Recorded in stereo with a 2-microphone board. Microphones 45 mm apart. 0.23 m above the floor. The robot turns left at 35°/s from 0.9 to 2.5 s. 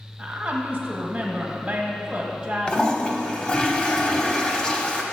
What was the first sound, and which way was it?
A woman speaking, 20° right (ahead or behind).